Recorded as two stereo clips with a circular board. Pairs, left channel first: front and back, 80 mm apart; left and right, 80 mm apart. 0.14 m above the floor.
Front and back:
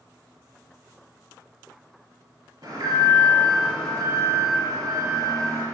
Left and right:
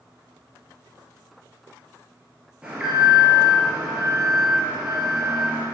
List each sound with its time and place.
2.6 s an alarm: 165° right, 4 m